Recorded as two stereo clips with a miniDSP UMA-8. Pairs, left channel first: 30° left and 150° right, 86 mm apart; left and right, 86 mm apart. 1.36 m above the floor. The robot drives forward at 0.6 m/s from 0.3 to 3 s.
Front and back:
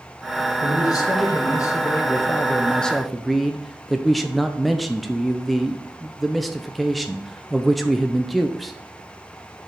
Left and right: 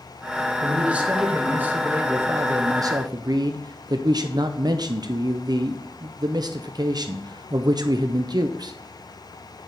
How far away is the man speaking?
About 1.8 m.